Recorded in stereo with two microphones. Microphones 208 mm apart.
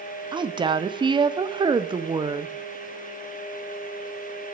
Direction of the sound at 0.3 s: 25° right (ahead or behind).